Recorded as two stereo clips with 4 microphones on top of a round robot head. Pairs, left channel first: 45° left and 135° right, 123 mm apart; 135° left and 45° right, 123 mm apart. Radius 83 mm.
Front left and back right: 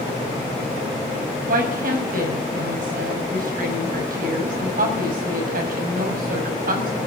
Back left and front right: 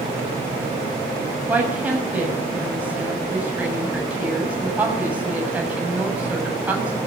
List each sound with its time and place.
1.5 s a woman speaking: 125° right, 6.5 m